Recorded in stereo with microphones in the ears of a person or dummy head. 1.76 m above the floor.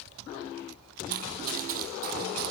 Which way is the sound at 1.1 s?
50° right (ahead or behind).